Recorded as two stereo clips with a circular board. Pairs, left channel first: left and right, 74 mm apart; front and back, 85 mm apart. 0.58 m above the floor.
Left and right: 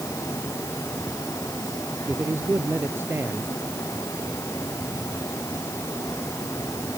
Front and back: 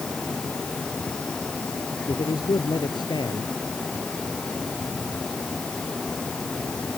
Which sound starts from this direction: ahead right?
A man speaking, at 2.1 s.